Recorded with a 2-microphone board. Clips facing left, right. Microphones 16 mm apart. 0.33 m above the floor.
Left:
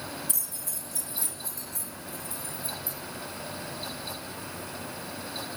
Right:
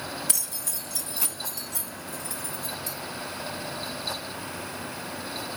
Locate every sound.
0.3 s keys jangling: 55° right (ahead or behind), 1.3 m; by 3.0 s 75° right (ahead or behind), 4.5 m